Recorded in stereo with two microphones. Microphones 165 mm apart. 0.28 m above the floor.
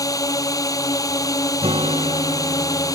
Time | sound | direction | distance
0.0 | a drone | 20° left (ahead or behind) | ?
1.6 | a guitar | 35° right (ahead or behind) | ?